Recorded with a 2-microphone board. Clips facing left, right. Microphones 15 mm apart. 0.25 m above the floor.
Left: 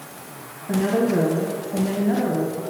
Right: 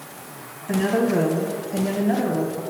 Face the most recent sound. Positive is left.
turn(degrees=-25)  # may be behind; listen again after turning